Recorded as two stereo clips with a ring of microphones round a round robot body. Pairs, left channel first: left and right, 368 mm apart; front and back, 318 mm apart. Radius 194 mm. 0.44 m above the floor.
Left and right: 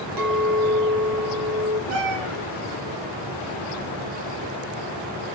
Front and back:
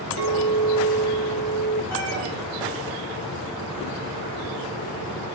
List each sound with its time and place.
0.2 s a clink: 125° right, 3 m
1.9 s a cat meowing: 80° right, 3.5 m